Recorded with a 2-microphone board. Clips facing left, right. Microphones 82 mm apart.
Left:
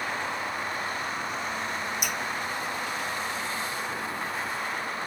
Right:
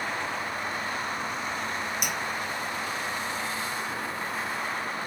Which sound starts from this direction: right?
Dripping, at 2.0 s.